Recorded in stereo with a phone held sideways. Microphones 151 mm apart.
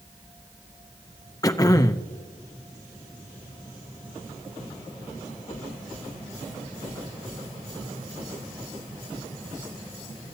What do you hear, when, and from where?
1.4 s throat clearing: 25° left (ahead or behind), 0.6 m